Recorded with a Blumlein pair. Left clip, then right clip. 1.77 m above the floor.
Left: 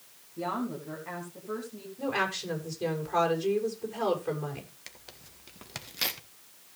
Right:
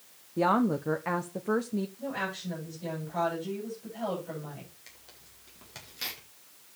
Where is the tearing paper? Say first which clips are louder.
Left 5 dB; 25° left, 1.7 m.